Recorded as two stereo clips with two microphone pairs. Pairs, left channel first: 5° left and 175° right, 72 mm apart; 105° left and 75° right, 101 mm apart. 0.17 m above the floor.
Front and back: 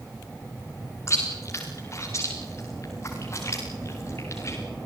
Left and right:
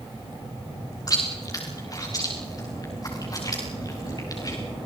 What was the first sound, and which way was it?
Chewing, 55° left.